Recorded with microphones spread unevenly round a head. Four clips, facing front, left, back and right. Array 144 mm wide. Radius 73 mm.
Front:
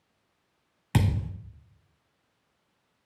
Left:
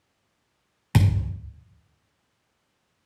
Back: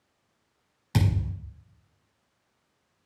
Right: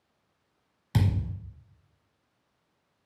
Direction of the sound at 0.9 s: 55° left.